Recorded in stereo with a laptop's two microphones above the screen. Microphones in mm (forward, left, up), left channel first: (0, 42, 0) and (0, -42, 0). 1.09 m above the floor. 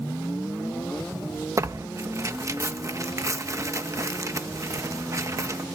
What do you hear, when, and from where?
1.6 s tearing paper: 40° right (ahead or behind), 0.6 m